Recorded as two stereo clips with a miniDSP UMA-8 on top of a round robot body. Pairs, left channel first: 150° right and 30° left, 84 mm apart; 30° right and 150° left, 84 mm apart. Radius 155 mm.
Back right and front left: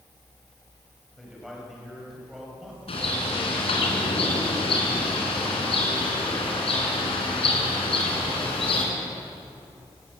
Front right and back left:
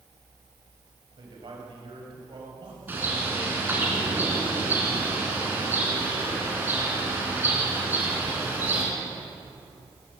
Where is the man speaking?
120° left, 5.5 m.